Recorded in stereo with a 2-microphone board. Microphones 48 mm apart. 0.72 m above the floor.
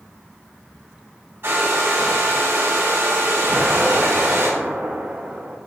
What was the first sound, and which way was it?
A hair dryer, 55° right (ahead or behind).